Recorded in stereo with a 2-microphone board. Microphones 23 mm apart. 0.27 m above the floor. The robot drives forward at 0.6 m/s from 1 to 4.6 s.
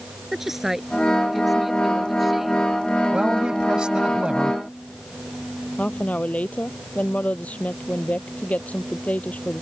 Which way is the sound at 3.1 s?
40° right (ahead or behind).